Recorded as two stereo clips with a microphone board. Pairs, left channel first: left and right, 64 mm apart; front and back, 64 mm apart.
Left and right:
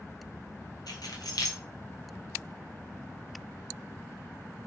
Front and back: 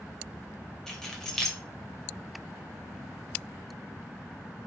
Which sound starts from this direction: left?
Keys jangling, at 0.9 s.